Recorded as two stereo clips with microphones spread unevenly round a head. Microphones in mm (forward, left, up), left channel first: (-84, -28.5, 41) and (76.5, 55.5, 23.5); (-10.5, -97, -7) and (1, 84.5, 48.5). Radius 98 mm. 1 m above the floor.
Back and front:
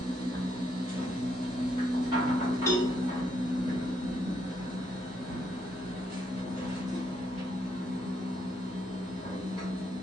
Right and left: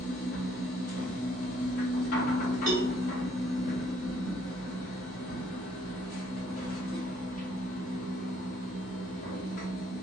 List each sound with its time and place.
0.0 s a machine running: 40° right, 1.7 m
2.7 s a cowbell: 135° left, 0.8 m